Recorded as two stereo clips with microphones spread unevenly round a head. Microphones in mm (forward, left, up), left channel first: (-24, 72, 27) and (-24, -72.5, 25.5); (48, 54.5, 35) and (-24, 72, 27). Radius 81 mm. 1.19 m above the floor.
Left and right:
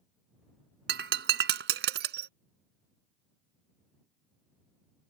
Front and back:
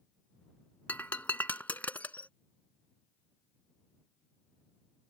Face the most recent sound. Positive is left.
turn(degrees=-90)